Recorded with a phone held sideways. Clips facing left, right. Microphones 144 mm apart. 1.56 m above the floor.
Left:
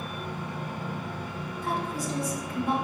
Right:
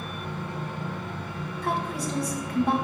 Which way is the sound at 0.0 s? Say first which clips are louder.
Right 1 dB; 15° left (ahead or behind).